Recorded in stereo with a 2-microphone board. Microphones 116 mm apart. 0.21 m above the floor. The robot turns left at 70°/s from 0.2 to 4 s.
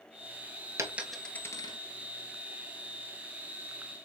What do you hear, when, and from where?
0.8 s a dropped coin: 25° right (ahead or behind), 0.8 m; by 1.8 s 45° left (ahead or behind), 0.8 m